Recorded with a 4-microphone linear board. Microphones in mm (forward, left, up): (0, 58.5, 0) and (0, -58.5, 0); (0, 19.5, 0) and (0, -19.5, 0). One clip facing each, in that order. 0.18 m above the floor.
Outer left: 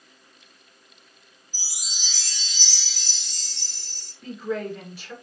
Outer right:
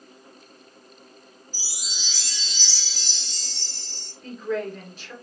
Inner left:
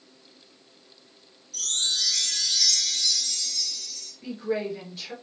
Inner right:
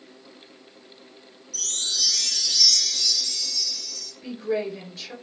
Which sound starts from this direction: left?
A chime, at 1.5 s.